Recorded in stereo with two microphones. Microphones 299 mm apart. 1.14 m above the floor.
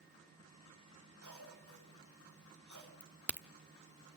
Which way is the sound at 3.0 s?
5° left (ahead or behind).